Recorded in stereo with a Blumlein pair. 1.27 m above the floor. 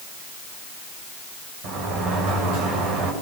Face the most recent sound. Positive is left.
turn(degrees=-40)